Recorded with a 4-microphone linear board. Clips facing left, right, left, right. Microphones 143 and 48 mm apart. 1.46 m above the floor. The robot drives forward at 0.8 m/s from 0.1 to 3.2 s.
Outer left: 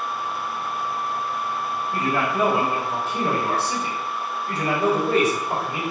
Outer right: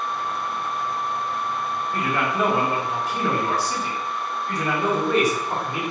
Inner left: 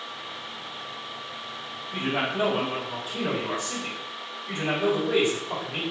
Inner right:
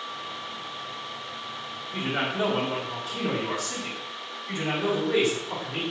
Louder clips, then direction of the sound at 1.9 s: Outer left 2 dB, inner left 1 dB; 35° left (ahead or behind).